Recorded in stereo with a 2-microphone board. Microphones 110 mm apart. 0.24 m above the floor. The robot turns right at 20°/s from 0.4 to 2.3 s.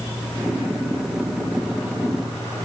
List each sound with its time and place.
Only background noise.